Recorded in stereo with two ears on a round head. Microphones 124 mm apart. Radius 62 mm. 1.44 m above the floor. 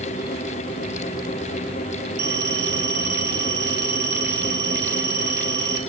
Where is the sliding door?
No sliding door in this recording.